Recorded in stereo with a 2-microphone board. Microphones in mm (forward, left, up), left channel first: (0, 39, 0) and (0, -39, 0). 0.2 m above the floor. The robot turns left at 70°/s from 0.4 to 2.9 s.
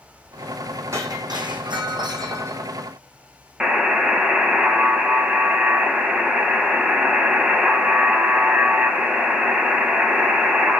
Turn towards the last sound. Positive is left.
turn(degrees=-10)  # may be behind; listen again after turning